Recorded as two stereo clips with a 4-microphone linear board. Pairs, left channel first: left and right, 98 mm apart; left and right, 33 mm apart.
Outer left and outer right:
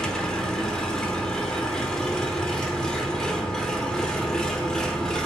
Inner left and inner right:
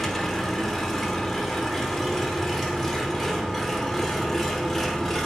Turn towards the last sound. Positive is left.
turn(degrees=10)  # may be behind; listen again after turning